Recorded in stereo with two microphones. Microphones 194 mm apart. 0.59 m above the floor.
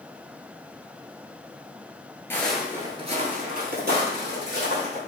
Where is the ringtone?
No ringtone in this recording.